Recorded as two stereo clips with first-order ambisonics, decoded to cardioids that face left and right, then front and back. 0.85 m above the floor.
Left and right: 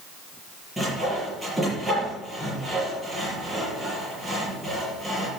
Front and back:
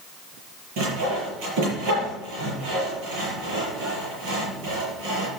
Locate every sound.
0.8 s sawing: 170° right, 6 m